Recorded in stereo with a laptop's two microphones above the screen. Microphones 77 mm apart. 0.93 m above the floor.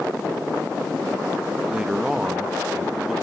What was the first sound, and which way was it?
A man speaking, 10° right (ahead or behind).